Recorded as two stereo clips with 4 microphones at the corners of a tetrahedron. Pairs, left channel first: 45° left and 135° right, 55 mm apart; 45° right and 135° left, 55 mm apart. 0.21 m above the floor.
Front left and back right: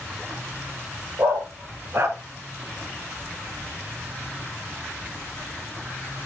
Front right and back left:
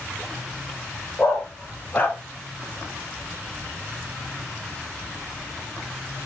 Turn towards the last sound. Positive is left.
turn(degrees=-105)